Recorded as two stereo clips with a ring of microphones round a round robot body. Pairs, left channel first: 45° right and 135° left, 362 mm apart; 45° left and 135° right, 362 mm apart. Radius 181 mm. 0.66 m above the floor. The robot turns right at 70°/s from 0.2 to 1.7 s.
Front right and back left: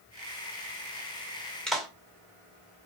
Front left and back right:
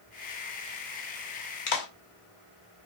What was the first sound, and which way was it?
A clap, 40° left.